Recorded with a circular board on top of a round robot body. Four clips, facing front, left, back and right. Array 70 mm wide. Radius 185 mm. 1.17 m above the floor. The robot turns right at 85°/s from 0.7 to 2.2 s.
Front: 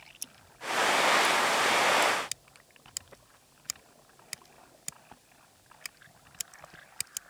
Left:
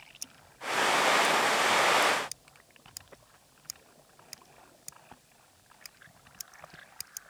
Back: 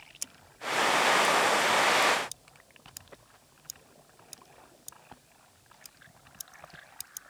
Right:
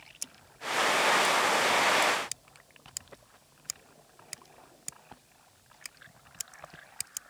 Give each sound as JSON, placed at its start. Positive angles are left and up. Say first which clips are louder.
{"t": 0.2, "sound": "scissors", "louder": "even, back 2 dB", "azimuth_deg": -155}